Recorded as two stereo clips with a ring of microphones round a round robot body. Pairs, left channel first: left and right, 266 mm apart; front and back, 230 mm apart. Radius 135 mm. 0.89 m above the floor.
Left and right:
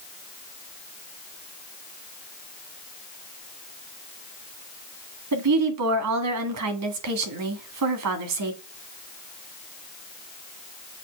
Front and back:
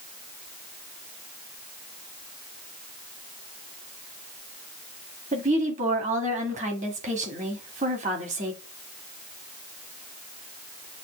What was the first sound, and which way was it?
A woman speaking, 115° right.